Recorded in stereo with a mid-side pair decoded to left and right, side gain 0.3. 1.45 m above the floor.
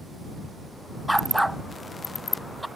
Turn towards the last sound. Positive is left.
turn(degrees=-10)